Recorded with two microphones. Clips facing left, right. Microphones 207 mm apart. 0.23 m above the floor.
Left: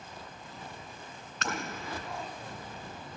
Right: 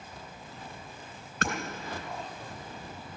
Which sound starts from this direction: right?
Hammering, at 1.4 s.